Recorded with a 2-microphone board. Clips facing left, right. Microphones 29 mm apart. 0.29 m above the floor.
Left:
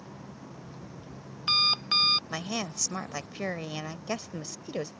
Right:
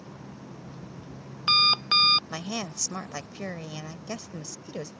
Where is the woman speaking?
20° left (ahead or behind).